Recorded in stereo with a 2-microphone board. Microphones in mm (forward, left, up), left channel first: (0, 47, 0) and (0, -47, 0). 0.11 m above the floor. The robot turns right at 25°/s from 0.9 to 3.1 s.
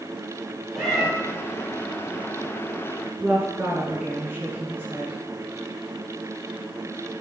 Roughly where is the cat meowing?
Centre.